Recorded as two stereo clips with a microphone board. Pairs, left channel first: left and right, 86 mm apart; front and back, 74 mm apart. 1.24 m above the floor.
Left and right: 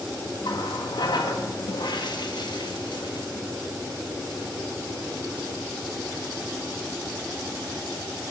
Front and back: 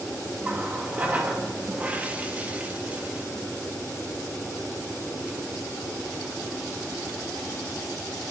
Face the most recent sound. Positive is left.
turn(degrees=110)